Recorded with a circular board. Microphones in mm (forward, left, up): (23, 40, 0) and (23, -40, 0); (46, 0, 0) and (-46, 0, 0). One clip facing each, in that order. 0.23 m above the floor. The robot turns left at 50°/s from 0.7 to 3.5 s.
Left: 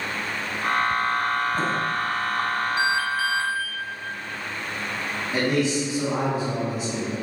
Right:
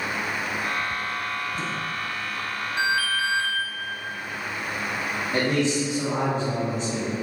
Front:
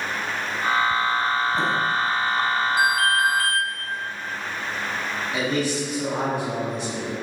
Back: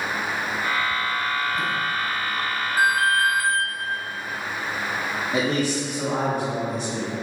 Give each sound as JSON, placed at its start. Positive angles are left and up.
{"t": 2.8, "sound": "an alarm", "azimuth_deg": 160, "distance_m": 1.0}
{"t": 5.3, "sound": "a man speaking", "azimuth_deg": 170, "distance_m": 2.0}